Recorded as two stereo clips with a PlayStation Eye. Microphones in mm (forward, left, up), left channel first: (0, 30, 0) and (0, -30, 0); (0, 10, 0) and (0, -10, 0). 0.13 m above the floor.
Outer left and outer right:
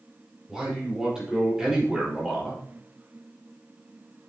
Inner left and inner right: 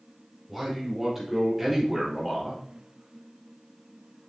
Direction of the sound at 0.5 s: 10° right (ahead or behind).